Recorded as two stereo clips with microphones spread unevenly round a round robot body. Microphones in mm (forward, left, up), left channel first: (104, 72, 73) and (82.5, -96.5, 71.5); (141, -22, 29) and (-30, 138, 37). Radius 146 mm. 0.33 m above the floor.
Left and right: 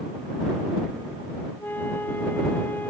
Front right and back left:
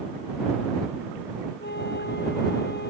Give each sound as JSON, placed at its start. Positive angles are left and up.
{"t": 1.6, "sound": "a flute", "azimuth_deg": 5}